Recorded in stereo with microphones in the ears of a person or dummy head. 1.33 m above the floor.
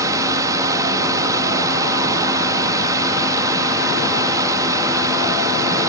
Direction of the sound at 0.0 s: 15° right (ahead or behind).